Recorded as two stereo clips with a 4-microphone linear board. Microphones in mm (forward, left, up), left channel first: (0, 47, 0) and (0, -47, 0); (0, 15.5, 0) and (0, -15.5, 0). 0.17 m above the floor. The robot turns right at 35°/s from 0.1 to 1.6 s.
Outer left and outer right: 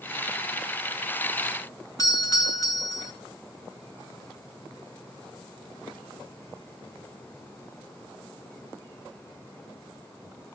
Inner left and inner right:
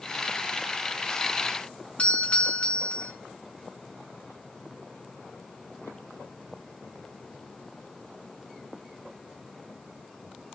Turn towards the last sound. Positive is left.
turn(degrees=40)  # may be behind; listen again after turning